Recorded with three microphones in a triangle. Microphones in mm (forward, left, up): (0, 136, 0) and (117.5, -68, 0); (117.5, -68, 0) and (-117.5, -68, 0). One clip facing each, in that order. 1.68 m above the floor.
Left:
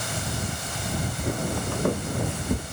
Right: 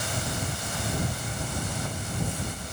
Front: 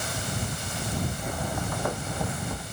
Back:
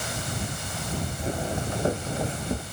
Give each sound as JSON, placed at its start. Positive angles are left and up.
{"t": 1.2, "sound": "footsteps", "azimuth_deg": 120}